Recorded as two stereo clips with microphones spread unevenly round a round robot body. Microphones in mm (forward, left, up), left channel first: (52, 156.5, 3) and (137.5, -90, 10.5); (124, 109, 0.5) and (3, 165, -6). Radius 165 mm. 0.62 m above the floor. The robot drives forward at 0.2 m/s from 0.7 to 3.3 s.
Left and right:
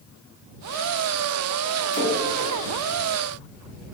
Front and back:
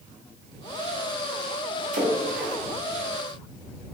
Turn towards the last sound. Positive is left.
turn(degrees=165)